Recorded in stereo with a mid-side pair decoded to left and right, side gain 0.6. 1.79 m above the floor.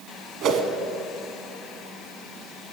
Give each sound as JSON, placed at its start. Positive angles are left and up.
{"t": 0.4, "sound": "a whoosh", "azimuth_deg": -60, "distance_m": 1.2}